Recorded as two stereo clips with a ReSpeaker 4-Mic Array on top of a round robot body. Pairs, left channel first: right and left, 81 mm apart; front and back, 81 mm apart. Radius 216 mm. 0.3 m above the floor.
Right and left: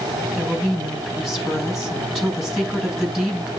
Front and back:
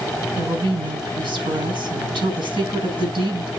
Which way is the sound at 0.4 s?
Straight behind.